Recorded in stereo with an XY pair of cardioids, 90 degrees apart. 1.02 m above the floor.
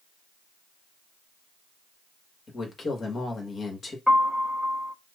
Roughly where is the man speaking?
Ahead left.